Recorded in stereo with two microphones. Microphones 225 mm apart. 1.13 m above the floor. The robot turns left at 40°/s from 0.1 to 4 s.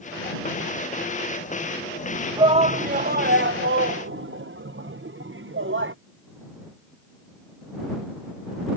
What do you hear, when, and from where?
2.4 s a shout: 20° right (ahead or behind); by 6.0 s 60° right (ahead or behind)